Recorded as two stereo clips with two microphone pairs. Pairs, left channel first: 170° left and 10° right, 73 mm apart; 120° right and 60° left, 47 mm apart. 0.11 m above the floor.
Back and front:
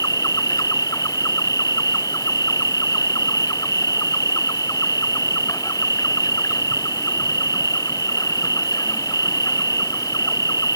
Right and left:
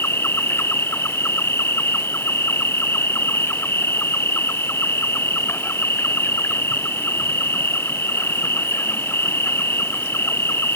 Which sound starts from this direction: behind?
An insect, at 0.0 s.